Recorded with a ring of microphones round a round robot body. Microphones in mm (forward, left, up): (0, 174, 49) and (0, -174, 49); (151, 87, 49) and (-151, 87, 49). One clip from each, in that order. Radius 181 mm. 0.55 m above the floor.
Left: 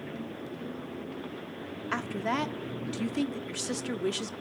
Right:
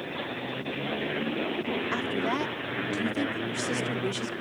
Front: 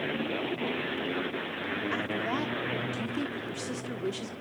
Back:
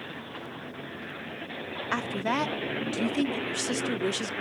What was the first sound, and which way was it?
A woman speaking, 165° left.